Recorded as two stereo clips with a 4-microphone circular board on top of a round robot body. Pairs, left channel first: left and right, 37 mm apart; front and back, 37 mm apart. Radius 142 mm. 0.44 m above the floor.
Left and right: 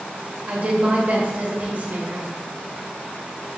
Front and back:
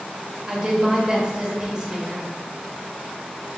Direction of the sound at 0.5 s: 120° right.